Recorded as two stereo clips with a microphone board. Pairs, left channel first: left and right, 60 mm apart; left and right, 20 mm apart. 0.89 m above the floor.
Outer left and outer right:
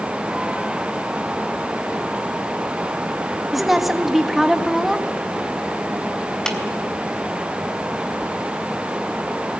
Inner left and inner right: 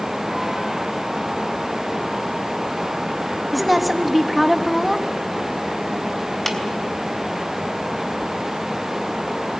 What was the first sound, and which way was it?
A woman speaking, centre (ahead or behind).